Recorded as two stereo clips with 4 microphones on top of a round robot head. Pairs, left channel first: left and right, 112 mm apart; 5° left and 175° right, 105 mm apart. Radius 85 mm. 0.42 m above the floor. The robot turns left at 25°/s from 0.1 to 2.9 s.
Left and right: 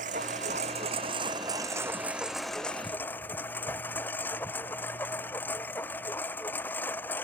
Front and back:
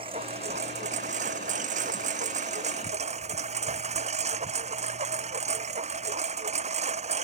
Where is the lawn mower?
120° right; by 7.2 s 170° left.